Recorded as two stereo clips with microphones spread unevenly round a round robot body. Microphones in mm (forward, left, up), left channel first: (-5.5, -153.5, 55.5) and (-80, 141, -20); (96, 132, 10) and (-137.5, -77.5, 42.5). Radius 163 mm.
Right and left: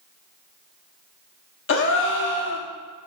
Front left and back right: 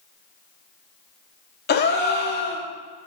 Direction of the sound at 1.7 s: 20° right.